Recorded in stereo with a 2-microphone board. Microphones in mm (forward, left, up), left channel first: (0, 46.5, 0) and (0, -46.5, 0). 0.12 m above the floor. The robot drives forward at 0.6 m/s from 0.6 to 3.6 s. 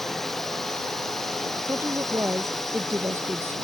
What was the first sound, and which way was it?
A drone, centre (ahead or behind).